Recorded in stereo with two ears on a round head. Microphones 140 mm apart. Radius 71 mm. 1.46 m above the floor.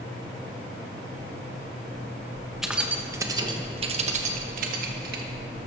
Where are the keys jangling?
5° right (ahead or behind), 1.1 m; by 5.2 s 70° right (ahead or behind), 1.5 m.